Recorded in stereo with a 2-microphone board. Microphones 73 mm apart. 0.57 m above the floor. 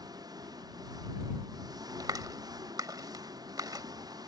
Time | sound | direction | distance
0.0 | an engine running | 65° right (ahead or behind) | ?
2.0 | a clap | 65° right (ahead or behind) | ?